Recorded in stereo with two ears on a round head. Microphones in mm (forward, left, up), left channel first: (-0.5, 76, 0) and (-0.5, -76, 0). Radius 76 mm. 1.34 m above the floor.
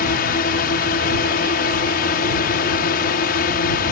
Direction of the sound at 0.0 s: 55° left (ahead or behind).